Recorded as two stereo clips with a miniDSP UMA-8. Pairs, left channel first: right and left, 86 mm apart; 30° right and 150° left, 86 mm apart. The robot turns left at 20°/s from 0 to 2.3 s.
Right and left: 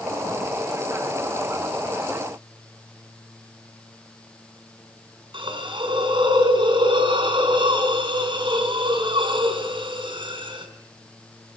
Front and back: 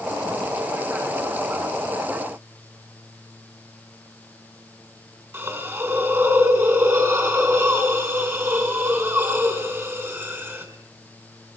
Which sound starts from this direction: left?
A hiss, at 5.3 s.